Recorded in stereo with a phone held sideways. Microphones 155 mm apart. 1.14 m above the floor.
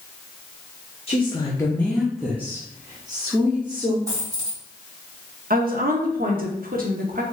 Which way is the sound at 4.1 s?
20° right (ahead or behind).